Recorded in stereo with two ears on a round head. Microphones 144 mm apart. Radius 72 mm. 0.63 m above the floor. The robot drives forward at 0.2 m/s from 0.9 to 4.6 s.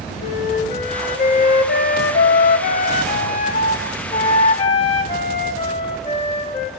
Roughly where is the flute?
Left.